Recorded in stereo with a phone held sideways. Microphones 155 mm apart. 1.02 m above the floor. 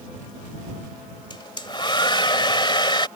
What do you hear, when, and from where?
1.3 s a hair dryer: 35° left (ahead or behind)